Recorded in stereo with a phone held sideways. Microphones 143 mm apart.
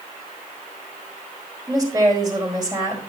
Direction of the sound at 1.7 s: 30° right (ahead or behind).